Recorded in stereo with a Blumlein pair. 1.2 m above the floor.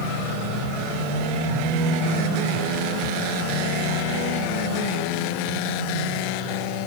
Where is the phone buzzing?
10° left, 3.5 m.